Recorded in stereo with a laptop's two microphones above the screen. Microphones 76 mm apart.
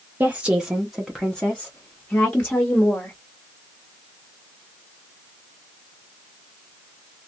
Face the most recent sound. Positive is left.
turn(degrees=25)  # may be behind; listen again after turning